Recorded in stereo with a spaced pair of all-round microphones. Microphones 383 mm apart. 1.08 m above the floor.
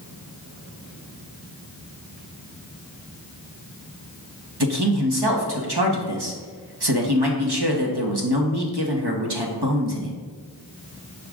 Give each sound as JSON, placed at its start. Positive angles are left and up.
{"t": 4.6, "sound": "a man speaking", "side_deg": -70, "distance_m": 1.5}